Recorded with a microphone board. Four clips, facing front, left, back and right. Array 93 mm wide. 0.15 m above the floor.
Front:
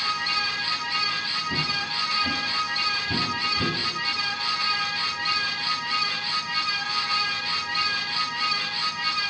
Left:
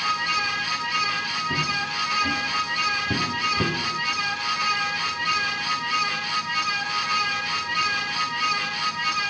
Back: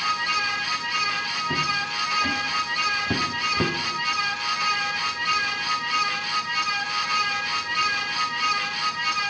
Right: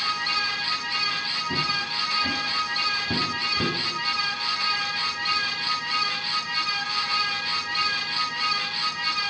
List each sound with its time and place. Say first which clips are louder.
1.5 s footsteps: even, back 4 dB; 170° right, 3.5 m; by 3.8 s 165° left, 1.6 m